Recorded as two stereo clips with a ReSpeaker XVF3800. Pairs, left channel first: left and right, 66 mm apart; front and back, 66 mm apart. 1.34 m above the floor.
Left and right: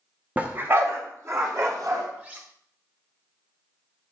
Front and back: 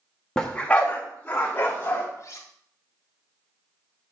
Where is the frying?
I don't hear frying.